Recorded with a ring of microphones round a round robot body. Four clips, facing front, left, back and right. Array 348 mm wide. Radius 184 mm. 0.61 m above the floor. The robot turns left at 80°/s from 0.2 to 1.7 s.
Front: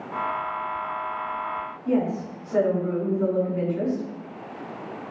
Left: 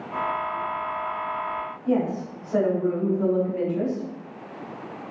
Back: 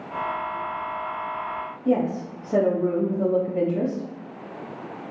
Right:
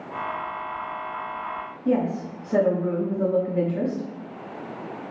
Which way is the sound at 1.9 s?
150° right.